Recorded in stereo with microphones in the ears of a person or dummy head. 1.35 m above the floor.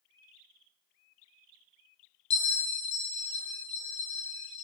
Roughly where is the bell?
Left.